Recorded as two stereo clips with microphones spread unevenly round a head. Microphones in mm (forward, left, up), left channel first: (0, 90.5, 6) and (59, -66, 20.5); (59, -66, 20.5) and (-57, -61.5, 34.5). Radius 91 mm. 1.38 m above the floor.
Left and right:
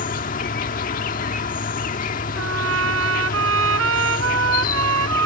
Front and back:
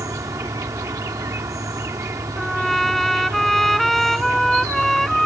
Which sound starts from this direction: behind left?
An insect, at 0.0 s.